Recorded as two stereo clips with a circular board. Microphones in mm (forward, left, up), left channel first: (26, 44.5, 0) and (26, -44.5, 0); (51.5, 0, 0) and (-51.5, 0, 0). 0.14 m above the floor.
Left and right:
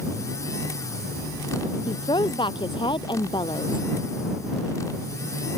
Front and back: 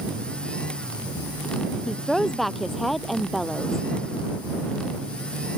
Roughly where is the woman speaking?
Left.